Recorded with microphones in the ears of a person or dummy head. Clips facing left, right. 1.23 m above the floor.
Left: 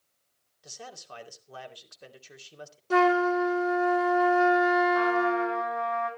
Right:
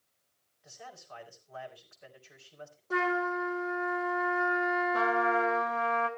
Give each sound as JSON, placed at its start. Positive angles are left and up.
{"t": 0.6, "sound": "a man speaking", "side_deg": 60, "distance_m": 3.0}
{"t": 2.9, "sound": "a flute", "side_deg": 50, "distance_m": 2.5}
{"t": 4.9, "sound": "a trumpet", "side_deg": -50, "distance_m": 2.5}